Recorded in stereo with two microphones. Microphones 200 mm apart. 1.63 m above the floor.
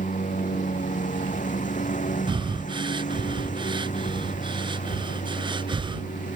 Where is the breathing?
25° right (ahead or behind).